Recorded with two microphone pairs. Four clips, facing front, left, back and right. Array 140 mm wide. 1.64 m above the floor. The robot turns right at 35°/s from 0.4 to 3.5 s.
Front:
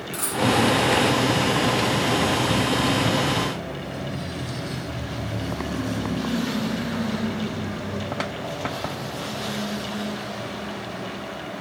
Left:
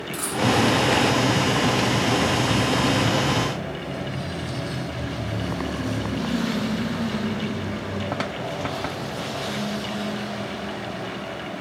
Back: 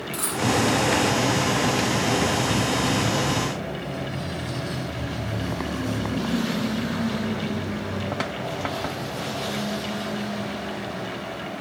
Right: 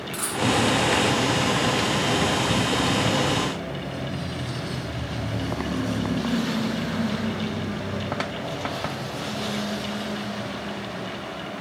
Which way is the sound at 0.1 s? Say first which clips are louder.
Left 2 dB, front 2 dB; 130° right.